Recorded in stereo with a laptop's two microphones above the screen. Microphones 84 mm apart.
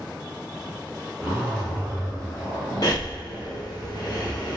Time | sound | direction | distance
1.2 | a zipper | 5° left (ahead or behind) | 1.4 m
2.8 | breathing | 50° left (ahead or behind) | 0.8 m